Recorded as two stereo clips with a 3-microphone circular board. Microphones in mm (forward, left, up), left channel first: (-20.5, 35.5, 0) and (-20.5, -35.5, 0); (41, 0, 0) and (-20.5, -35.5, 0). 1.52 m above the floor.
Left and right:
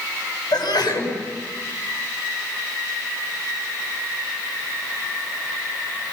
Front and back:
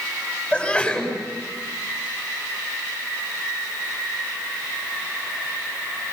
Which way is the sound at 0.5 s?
110° left.